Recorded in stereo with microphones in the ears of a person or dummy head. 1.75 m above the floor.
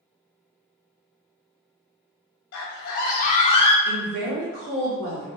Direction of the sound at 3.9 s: 75° right (ahead or behind).